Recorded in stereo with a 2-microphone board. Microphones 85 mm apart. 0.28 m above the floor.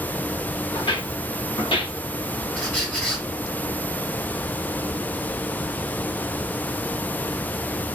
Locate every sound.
0.7 s footsteps: 65° left (ahead or behind), 1.4 m; by 2.5 s 70° left (ahead or behind), 0.8 m
2.5 s a squeak: 10° left (ahead or behind), 1.8 m